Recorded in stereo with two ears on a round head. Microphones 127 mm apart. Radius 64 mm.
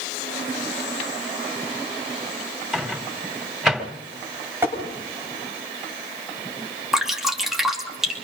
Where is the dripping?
5° right (ahead or behind), 2.5 m.